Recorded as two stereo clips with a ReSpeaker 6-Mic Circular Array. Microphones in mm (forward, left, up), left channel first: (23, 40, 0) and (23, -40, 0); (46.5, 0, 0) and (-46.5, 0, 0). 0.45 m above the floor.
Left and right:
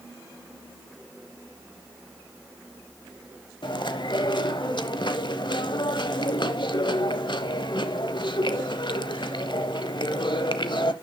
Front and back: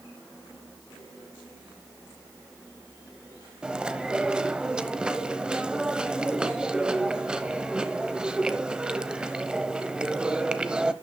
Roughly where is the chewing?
Left.